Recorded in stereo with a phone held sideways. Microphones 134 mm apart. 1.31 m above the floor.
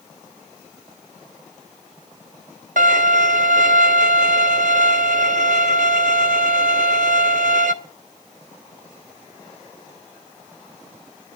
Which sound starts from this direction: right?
A violin, at 2.8 s.